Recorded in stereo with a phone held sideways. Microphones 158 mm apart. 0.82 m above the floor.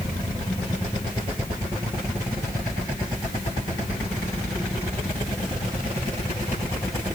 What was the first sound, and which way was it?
Only background noise.